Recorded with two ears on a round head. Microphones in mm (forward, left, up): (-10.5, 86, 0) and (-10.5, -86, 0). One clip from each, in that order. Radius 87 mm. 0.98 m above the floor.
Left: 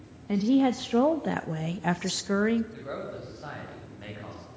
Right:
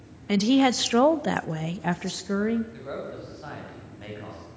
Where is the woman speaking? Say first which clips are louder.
Right 3 dB; 60° right (ahead or behind), 1.1 m; by 2.6 s 30° left (ahead or behind), 1.1 m.